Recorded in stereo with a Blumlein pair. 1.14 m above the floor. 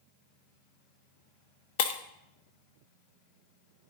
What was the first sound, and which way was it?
Breaking glass, 50° left.